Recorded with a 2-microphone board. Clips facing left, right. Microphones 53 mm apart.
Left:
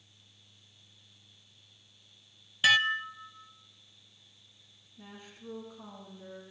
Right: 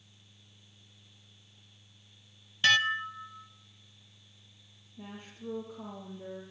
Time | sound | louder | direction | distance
2.6 | dishes clattering | left 1 dB | 5° left (ahead or behind) | 0.6 m
5.0 | a woman speaking | right 4 dB | 30° right (ahead or behind) | 6 m